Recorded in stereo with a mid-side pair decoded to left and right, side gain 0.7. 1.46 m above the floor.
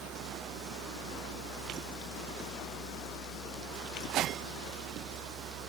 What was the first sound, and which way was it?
A fan, 55° right.